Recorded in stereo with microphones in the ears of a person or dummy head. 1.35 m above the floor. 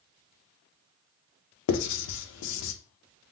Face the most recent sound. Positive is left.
turn(degrees=80)